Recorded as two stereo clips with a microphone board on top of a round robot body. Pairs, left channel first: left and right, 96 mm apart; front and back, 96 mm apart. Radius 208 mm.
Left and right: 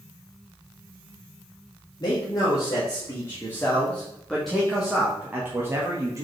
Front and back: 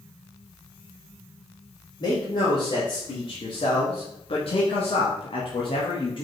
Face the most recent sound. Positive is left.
turn(degrees=-35)